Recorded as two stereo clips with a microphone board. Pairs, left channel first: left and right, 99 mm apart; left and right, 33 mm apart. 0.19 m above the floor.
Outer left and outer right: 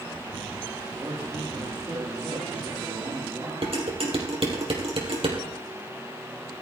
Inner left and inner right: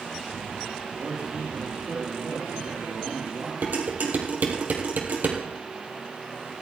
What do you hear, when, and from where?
0.9 s a man speaking: 35° right (ahead or behind), 4 m
3.6 s dishes clattering: 70° right (ahead or behind), 3.5 m